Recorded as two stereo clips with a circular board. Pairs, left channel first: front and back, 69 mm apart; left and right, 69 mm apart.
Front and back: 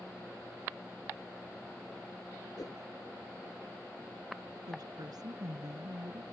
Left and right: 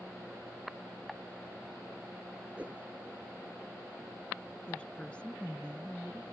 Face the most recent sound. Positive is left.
turn(degrees=165)